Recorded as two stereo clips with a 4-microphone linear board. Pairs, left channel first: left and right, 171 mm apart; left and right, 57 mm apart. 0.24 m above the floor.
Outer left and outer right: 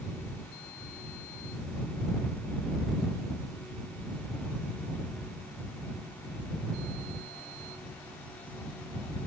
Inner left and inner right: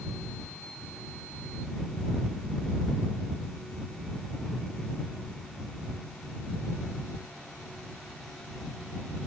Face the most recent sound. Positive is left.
No sound to turn to.